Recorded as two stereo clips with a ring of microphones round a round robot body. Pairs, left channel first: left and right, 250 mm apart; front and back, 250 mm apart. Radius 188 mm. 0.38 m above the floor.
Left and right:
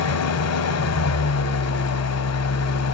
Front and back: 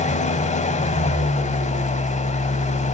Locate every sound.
0.0 s an engine running: 65° left, 0.8 m